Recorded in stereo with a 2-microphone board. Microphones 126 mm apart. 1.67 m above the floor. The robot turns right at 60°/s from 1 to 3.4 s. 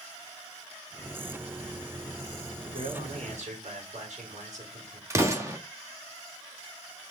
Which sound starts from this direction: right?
An explosion, at 5.1 s.